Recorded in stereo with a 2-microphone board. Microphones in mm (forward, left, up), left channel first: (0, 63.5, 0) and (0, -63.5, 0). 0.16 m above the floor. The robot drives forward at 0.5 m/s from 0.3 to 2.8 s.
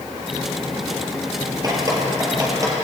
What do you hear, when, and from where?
1.6 s dripping: 30° right (ahead or behind), 3 m; by 2.7 s 25° right (ahead or behind), 3.5 m